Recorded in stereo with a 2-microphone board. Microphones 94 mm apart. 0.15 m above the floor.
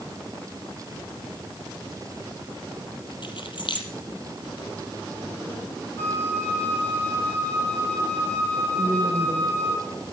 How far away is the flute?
About 5.5 m.